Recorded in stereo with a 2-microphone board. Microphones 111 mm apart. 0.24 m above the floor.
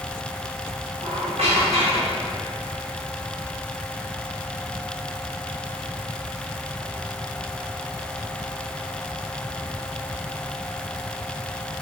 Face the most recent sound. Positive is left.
turn(degrees=-65)  # may be behind; listen again after turning